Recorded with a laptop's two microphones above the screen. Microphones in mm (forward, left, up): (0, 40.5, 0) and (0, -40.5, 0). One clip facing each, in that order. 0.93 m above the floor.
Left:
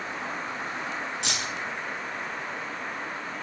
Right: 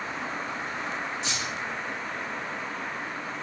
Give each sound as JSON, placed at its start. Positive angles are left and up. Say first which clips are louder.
{"t": 1.2, "sound": "keys jangling", "louder": "even", "side_deg": 70, "distance_m": 0.8}